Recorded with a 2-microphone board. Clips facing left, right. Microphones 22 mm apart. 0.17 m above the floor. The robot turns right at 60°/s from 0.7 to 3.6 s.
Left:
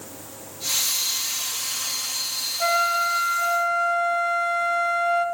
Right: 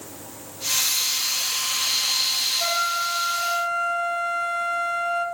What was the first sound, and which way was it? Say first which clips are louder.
A flute: left 2 dB; 20° left (ahead or behind).